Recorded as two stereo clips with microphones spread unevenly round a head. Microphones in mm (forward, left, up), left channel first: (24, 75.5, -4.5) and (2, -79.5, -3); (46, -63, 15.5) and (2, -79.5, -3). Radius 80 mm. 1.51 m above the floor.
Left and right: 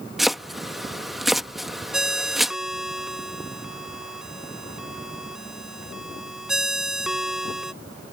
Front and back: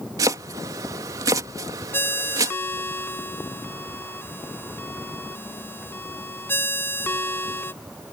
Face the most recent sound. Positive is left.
turn(degrees=-10)